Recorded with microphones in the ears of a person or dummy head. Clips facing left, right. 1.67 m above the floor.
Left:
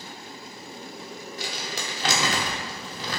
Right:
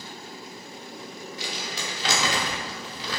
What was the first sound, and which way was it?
Crumpling, 40° left (ahead or behind).